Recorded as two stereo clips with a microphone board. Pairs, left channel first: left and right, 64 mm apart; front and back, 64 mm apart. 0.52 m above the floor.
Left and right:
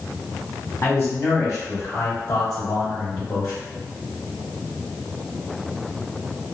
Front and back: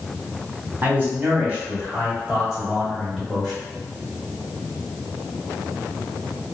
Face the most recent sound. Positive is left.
turn(degrees=85)